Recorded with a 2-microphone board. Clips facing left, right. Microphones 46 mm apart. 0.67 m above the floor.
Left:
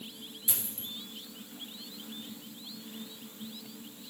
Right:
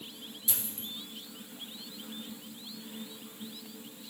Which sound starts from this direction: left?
A dropped coin, at 0.5 s.